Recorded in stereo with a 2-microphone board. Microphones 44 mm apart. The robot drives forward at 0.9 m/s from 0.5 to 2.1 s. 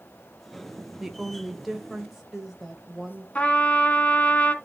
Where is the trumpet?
30° left (ahead or behind), 1.3 m.